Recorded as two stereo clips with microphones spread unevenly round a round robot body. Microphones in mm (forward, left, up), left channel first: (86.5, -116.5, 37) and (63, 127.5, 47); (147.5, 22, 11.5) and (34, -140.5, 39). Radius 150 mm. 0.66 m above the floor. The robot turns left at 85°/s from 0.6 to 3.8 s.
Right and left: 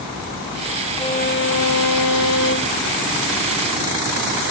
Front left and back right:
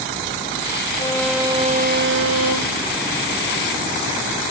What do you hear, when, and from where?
1.0 s a violin: 10° right; by 2.9 s 170° right